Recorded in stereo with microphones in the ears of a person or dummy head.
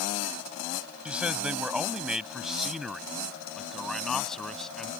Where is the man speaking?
5° right (ahead or behind); by 4.9 s 5° left (ahead or behind).